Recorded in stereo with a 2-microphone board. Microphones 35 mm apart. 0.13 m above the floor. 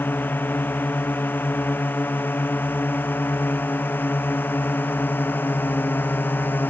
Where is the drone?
75° left (ahead or behind); by 6.7 s 80° left.